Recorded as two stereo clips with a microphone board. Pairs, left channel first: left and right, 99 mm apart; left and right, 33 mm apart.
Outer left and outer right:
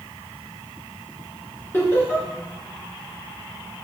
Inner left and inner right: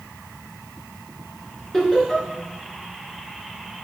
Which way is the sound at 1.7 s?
25° left (ahead or behind).